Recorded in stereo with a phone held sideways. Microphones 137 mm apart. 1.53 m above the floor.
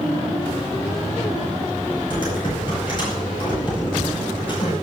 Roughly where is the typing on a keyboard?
Left.